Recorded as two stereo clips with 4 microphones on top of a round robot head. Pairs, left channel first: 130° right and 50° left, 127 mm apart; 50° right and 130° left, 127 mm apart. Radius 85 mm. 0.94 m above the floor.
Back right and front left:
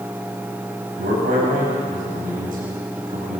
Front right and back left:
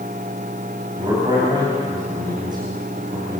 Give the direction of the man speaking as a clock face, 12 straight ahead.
10 o'clock.